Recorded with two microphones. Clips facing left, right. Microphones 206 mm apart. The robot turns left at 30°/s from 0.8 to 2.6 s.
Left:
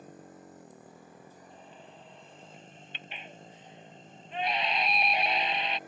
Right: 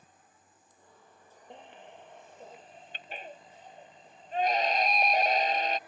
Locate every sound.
0.0 s a motorcycle: 100° left; by 5.9 s 45° left
1.5 s a baby crying: 75° right (ahead or behind); by 5.8 s 45° right (ahead or behind)